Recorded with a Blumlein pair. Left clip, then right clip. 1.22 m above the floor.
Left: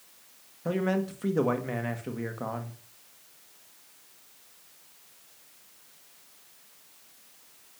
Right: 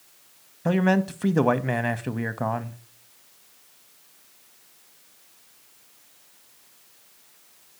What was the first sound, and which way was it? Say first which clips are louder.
A man speaking: right 6 dB; 70° right.